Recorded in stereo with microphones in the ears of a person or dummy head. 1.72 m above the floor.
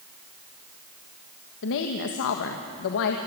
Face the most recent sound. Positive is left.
turn(degrees=65)  # may be behind; listen again after turning